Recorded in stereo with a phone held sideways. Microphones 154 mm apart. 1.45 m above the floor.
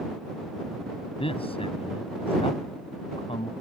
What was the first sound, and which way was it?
A man speaking, 35° left (ahead or behind).